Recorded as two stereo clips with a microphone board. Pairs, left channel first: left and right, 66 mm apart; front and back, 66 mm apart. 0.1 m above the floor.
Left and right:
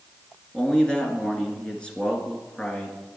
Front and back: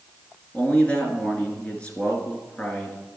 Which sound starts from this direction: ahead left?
A man speaking, at 0.5 s.